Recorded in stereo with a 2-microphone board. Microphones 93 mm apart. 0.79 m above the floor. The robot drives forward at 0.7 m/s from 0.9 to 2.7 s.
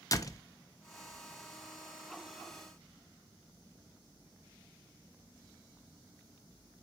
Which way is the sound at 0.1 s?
40° left (ahead or behind).